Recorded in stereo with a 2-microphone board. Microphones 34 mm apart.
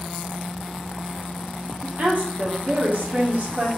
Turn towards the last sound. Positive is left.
turn(degrees=-50)  # may be behind; listen again after turning